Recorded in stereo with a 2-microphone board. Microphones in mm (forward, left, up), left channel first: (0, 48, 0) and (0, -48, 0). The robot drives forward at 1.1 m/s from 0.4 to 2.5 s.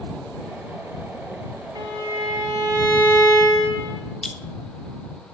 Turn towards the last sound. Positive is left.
turn(degrees=5)  # may be behind; listen again after turning